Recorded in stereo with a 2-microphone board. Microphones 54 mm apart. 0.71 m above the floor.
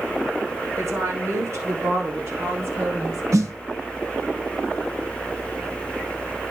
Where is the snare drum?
80° right, 1.5 m.